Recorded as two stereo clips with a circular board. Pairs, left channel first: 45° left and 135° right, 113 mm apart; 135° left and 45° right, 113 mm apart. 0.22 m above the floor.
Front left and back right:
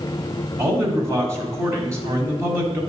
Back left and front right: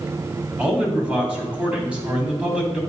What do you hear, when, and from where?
0.6 s a man speaking: 110° right, 1.7 m